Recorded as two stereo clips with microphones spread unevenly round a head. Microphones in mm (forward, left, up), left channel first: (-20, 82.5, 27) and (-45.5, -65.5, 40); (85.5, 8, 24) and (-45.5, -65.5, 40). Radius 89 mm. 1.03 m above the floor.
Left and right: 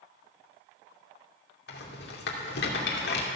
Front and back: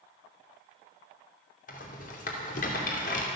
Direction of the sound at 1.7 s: 75° left.